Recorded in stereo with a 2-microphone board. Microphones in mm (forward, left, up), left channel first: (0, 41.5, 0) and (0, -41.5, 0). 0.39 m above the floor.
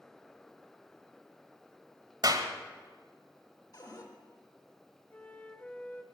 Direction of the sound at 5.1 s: 20° left (ahead or behind).